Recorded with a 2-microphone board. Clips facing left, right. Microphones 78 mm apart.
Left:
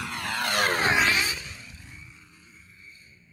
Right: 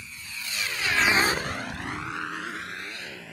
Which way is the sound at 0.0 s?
80° left.